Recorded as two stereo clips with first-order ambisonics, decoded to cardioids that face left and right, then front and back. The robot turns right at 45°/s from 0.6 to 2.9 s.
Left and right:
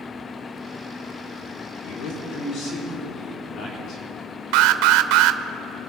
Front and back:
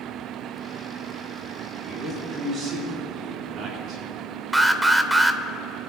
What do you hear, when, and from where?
1.9 s a man speaking: 95° left, 4.5 m; by 4.0 s 140° left, 4.5 m
4.5 s an alarm: 95° right, 0.5 m